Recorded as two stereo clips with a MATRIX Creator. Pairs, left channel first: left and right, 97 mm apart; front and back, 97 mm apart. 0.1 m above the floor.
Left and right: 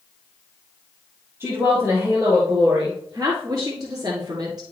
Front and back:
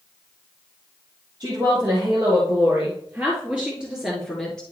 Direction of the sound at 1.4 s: 150° right.